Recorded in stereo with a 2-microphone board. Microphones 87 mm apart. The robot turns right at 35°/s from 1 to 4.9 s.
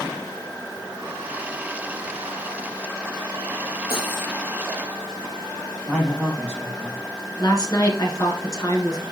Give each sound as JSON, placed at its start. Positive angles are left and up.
{"t": 3.9, "sound": "cutlery clinking", "side_deg": 60, "distance_m": 4.0}
{"t": 5.9, "sound": "a man speaking", "side_deg": 10, "distance_m": 4.0}
{"t": 7.4, "sound": "a woman speaking", "side_deg": 45, "distance_m": 2.0}